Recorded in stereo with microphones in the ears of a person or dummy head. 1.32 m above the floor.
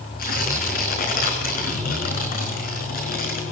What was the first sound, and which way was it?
Tearing paper, 60° left (ahead or behind).